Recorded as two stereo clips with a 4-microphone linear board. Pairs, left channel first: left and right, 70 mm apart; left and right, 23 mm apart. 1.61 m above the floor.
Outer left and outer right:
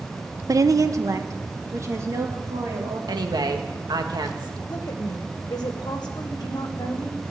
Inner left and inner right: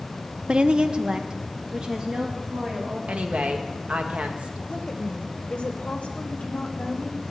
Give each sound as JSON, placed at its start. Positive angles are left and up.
{"t": 0.5, "sound": "a woman speaking", "side_deg": -50, "distance_m": 0.6}
{"t": 3.1, "sound": "a woman speaking", "side_deg": -75, "distance_m": 1.7}
{"t": 4.7, "sound": "a woman speaking", "side_deg": 70, "distance_m": 1.3}